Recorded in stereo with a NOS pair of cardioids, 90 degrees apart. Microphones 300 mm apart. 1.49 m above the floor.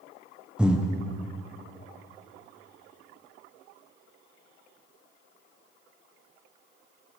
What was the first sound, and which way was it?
Breathing, 5° right.